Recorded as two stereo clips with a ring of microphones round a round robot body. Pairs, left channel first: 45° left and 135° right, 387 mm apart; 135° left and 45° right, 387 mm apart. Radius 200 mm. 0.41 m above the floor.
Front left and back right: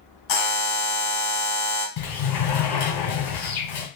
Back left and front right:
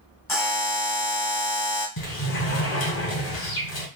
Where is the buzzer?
50° left, 1.4 m.